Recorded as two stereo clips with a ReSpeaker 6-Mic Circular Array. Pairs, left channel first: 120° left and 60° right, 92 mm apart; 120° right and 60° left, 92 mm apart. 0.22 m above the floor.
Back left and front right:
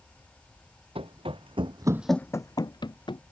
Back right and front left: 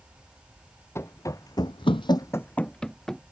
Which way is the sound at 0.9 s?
60° right.